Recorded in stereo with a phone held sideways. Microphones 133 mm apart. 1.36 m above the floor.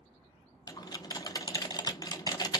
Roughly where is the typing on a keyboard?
Left.